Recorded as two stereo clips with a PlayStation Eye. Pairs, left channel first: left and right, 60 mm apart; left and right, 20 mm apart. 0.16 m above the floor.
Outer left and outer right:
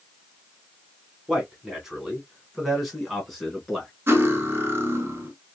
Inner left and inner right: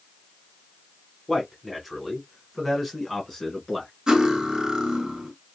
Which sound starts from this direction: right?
Cutlery clinking, at 4.1 s.